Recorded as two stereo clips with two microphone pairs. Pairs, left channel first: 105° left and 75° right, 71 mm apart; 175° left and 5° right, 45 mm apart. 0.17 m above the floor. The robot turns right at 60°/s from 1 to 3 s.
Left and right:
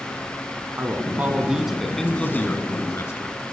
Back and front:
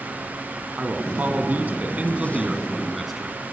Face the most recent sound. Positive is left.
turn(degrees=85)